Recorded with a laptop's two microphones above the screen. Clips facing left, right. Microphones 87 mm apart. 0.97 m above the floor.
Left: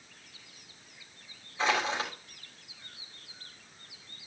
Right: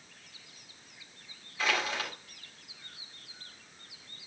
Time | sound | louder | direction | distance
1.6 | crushing | left 3 dB | 25° left (ahead or behind) | 3.5 m